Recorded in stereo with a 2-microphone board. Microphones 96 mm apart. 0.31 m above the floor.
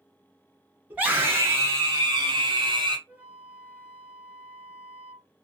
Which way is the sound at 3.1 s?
15° right (ahead or behind).